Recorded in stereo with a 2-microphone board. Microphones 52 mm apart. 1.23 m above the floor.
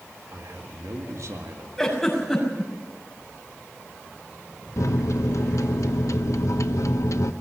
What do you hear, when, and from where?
0.3 s a man speaking: 70° right (ahead or behind), 2 m
1.8 s a giggle: 10° left (ahead or behind), 6.5 m
4.8 s a microwave: 75° left (ahead or behind), 0.9 m